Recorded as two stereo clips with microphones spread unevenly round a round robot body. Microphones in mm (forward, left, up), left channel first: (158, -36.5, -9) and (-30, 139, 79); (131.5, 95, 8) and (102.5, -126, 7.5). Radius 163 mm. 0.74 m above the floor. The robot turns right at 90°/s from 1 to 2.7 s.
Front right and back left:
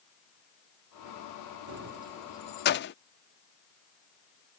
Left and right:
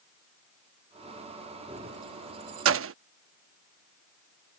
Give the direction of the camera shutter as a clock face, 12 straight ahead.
No camera shutter in this recording.